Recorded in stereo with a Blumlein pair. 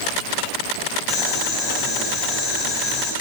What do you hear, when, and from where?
1.1 s boiling: 20° left, 5 m